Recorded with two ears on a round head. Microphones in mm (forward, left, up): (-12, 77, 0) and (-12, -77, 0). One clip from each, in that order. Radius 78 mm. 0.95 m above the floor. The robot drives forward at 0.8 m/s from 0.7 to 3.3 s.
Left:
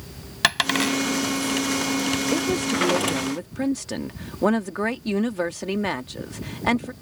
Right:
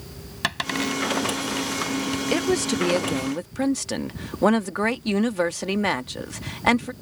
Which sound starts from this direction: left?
A dropped coin, at 0.4 s.